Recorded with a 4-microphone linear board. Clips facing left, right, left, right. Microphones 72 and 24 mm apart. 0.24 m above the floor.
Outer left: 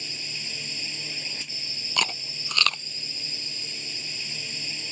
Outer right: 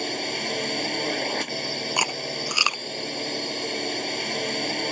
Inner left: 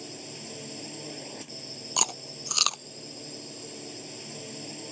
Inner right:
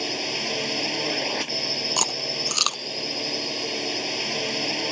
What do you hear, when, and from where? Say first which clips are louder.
0.0 s a drone: outer right 12 dB, inner right 14 dB; 70° right (ahead or behind)
2.0 s chewing: even, inner right 6 dB; 15° right (ahead or behind)